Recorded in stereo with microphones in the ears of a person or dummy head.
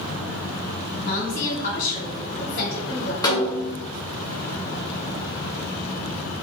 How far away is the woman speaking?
About 1.4 m.